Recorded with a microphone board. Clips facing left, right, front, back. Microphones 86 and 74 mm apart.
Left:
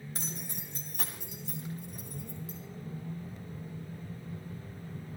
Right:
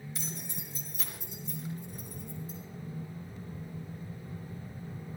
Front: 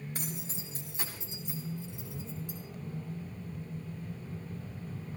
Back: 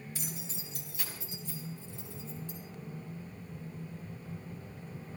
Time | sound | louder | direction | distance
0.1 | keys jangling | even, front 3 dB | 40° left | 3 m